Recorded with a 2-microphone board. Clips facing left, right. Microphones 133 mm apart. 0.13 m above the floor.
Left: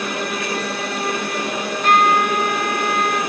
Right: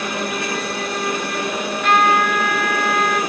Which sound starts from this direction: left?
A trumpet, at 1.6 s.